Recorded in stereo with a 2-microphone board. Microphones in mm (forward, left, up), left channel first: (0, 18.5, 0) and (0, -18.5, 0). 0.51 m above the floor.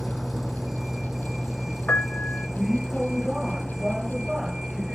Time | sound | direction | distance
0.0 | a vehicle | 5° right (ahead or behind) | ?
1.9 | a piano | 50° left (ahead or behind) | ?